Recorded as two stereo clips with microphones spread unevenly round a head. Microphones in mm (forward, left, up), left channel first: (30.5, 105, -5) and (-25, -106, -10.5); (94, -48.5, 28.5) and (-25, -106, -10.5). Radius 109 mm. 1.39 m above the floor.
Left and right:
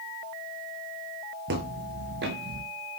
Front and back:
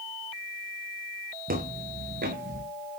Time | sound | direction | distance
1.5 | footsteps | 145° right | 4 m